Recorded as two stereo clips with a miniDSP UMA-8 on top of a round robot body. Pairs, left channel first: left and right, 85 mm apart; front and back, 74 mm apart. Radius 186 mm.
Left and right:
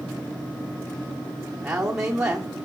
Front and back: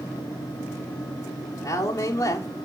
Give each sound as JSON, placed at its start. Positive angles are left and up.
{"t": 1.6, "sound": "a woman speaking", "azimuth_deg": -10, "distance_m": 2.5}